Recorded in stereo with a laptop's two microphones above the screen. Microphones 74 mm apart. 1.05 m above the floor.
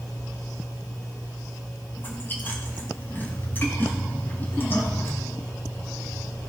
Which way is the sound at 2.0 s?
30° left (ahead or behind).